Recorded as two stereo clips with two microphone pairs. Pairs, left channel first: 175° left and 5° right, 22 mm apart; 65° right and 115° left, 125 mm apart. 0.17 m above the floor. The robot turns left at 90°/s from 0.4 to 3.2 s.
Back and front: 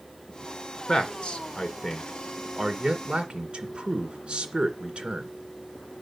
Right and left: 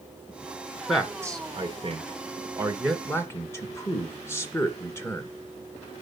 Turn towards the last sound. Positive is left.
turn(degrees=-5)